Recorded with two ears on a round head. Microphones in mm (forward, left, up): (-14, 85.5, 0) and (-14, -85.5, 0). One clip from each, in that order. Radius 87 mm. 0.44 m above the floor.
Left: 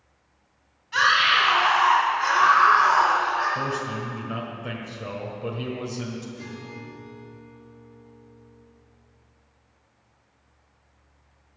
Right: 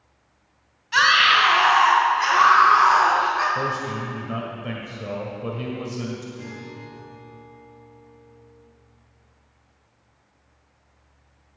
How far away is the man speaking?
About 1.6 m.